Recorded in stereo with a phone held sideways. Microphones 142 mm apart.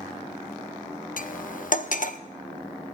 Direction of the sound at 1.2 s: 70° left (ahead or behind).